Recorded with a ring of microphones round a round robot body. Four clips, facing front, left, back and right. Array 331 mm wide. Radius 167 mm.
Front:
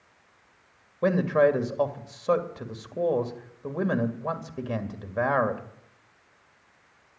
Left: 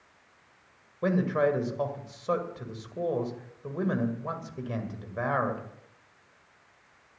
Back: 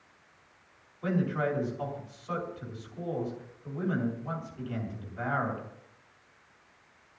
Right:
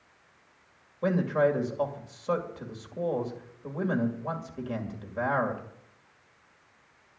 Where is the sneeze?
No sneeze in this recording.